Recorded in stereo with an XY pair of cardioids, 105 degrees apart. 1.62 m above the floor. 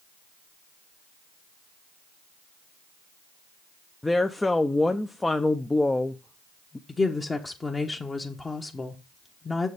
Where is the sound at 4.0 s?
15° left, 0.6 m.